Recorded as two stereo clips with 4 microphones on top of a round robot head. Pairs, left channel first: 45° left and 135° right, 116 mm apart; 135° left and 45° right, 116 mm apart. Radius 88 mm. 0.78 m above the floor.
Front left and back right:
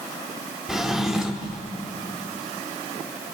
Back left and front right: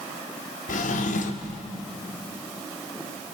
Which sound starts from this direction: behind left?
A drawer, at 0.7 s.